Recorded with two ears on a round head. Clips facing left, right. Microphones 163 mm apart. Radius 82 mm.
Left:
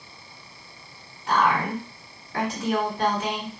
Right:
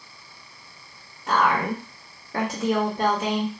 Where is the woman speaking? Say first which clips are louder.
Even; 35° right (ahead or behind), 1.4 m.